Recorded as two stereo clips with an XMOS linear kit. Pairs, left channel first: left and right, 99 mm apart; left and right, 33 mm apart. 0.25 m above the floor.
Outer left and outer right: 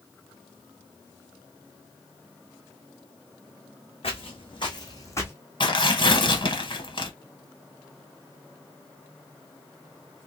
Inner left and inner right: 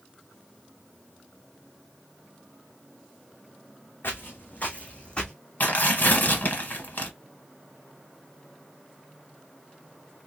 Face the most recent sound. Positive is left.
turn(degrees=55)  # may be behind; listen again after turning